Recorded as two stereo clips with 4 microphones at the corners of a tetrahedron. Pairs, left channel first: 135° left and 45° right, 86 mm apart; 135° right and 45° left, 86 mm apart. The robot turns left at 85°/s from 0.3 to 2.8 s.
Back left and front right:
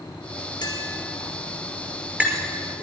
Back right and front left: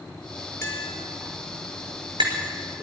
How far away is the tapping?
About 4.5 m.